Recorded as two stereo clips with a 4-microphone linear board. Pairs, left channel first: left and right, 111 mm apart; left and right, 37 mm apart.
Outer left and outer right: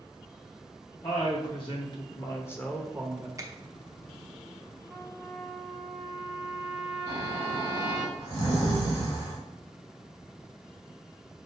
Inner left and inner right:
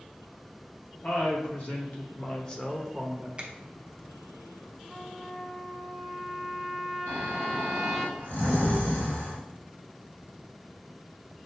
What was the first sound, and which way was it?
A woman speaking, 55° left (ahead or behind).